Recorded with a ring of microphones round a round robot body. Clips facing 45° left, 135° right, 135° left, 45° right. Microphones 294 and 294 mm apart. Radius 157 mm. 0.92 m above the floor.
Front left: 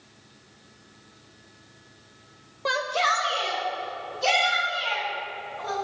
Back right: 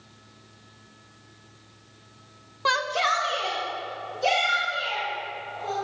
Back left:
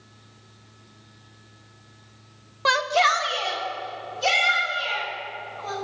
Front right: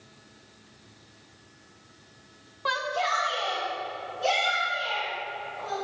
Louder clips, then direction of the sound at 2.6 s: Front left 1 dB, back left 7 dB; 160° left.